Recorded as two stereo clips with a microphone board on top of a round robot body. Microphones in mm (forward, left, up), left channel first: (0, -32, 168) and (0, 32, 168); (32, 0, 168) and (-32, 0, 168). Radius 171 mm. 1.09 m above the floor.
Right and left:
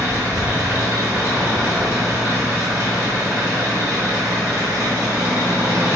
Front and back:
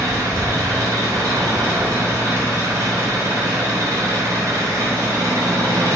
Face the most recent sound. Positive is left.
turn(degrees=130)